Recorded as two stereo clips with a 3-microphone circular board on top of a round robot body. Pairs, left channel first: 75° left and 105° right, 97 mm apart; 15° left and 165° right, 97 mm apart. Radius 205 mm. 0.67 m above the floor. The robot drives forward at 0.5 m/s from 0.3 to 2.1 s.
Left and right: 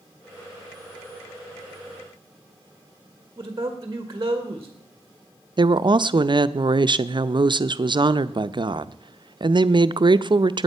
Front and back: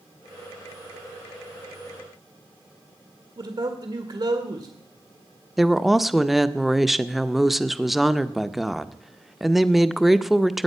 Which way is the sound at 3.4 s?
150° right.